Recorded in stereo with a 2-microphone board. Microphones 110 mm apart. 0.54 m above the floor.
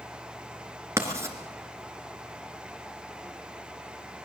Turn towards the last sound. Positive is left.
turn(degrees=-25)  # may be behind; listen again after turning